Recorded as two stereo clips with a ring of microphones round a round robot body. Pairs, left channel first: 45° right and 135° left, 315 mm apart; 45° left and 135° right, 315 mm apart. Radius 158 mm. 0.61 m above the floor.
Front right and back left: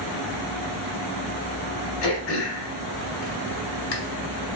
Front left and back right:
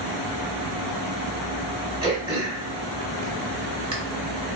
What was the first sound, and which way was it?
Throat clearing, 60° right.